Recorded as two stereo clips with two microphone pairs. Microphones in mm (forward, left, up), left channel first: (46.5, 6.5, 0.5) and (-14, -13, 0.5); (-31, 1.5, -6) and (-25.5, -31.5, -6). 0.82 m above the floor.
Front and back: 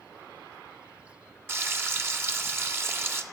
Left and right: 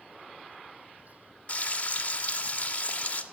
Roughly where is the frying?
Behind left.